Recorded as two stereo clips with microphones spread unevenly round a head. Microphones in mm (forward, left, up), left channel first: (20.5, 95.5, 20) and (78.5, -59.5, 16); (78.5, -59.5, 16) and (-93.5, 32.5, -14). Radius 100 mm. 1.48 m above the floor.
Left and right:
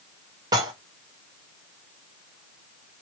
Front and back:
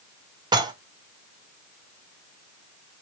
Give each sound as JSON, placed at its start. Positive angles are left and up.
{"t": 0.5, "sound": "dishes clattering", "azimuth_deg": -140, "distance_m": 1.0}